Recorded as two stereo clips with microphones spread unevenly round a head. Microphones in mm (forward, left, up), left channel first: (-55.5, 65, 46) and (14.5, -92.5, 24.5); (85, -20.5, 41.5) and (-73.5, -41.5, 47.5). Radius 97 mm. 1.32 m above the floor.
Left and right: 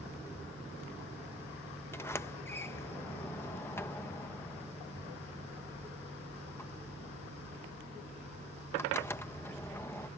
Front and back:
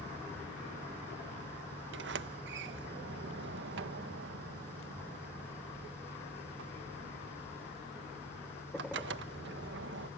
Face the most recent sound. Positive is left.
turn(degrees=-170)